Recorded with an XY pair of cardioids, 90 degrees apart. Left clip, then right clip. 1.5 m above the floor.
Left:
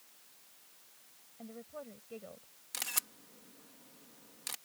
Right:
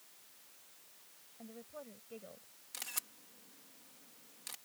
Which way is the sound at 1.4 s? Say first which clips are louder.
Left 3 dB; 25° left.